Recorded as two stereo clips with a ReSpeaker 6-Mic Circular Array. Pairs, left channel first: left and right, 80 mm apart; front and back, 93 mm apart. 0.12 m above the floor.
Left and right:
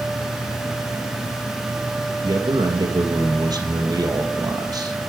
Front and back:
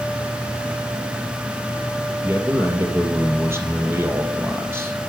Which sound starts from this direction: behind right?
A man speaking, at 2.2 s.